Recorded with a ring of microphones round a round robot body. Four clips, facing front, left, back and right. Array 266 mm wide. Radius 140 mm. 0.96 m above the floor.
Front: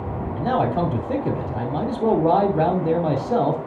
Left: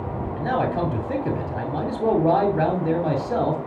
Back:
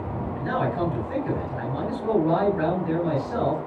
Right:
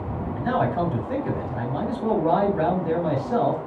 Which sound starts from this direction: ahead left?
A man speaking, at 0.4 s.